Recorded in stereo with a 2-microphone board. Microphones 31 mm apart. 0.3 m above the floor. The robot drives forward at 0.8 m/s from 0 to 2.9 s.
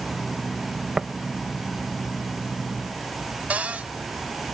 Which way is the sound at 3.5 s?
55° right (ahead or behind).